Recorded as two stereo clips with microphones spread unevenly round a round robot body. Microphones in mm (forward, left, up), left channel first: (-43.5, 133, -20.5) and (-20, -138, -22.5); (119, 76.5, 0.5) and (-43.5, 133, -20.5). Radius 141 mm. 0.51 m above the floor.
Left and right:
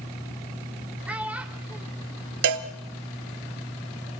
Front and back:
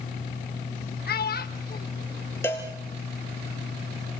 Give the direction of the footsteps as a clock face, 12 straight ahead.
No footsteps in this recording.